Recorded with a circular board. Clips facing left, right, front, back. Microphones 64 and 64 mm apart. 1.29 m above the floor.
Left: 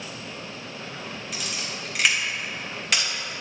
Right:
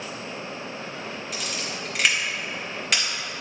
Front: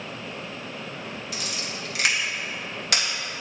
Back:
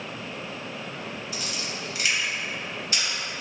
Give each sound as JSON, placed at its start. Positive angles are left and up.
{"t": 1.3, "sound": "a camera shutter", "azimuth_deg": 0, "distance_m": 2.0}